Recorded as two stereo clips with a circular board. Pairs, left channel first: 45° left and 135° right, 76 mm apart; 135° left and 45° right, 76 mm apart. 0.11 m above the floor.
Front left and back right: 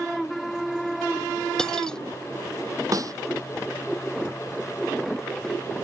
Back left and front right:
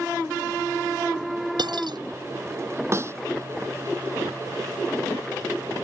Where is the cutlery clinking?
35° right.